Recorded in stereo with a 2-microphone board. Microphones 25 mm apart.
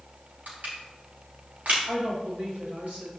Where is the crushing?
75° right (ahead or behind), 5 m.